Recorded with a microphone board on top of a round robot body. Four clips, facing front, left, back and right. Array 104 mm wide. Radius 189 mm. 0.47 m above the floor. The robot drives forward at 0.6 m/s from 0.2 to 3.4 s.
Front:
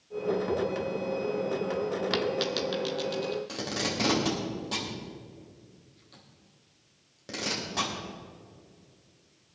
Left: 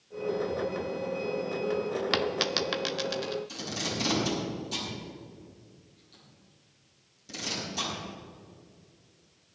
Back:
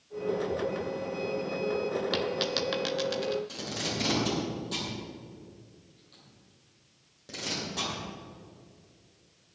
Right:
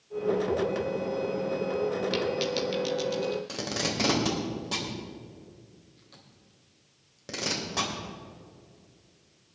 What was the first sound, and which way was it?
A dropped coin, 75° left.